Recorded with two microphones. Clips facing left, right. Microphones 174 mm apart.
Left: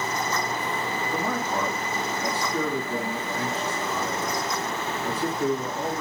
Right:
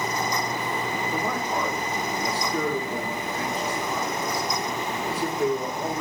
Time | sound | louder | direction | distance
1.1 | a man speaking | left 1 dB | 10° right (ahead or behind) | 2.5 m